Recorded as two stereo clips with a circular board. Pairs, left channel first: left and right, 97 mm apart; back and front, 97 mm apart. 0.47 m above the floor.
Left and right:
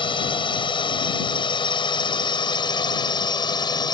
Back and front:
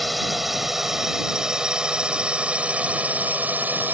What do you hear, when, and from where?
0.0 s a drone: 90° left; by 4.0 s 65° left